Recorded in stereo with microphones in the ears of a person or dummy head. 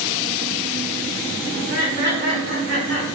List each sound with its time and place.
1.5 s laughter: 50° right (ahead or behind), 1.3 m; by 3.1 s 65° right (ahead or behind), 2.0 m